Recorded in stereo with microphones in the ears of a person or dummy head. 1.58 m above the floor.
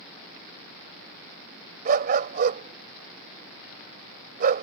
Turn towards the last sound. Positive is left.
turn(degrees=-55)  # may be behind; listen again after turning